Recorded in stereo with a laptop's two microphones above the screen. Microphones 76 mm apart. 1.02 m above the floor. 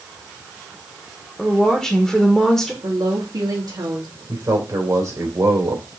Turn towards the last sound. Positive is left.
turn(degrees=-45)  # may be behind; listen again after turning